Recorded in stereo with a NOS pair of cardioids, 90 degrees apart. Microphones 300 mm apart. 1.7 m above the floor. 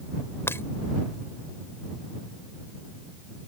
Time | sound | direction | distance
0.5 | breaking glass | 10° left | ?